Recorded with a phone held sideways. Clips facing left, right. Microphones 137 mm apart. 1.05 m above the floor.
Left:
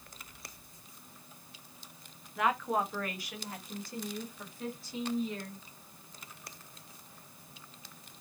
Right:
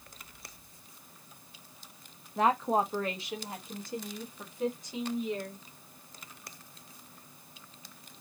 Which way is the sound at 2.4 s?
35° right (ahead or behind).